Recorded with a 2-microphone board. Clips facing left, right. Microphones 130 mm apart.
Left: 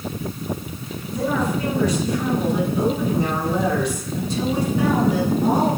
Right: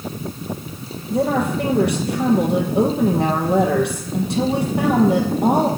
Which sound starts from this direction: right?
A woman speaking, at 1.1 s.